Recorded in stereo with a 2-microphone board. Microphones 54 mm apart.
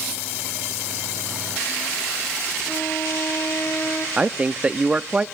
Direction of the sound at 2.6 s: 70° left (ahead or behind).